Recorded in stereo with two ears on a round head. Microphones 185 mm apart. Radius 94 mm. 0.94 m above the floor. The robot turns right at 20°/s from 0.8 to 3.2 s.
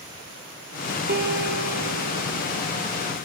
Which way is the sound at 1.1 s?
120° right.